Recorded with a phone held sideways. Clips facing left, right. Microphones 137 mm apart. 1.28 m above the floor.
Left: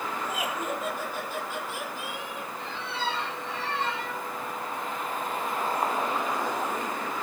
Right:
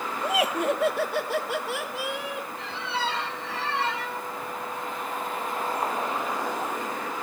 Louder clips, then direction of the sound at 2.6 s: Right 2 dB; 80° right.